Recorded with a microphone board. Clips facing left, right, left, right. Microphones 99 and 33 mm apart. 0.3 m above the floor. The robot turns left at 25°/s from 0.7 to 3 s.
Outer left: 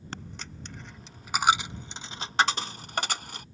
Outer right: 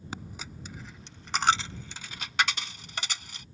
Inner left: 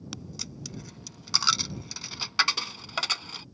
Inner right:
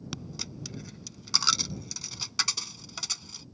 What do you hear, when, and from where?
0.1 s a dropped coin: 10° right (ahead or behind); by 3.5 s 50° left (ahead or behind)